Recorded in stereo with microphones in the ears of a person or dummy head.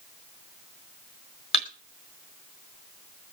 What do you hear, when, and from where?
1.5 s a thud: 30° left (ahead or behind), 1.4 m